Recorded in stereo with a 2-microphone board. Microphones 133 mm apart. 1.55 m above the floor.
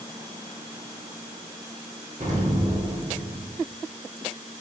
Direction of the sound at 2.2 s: 65° right (ahead or behind).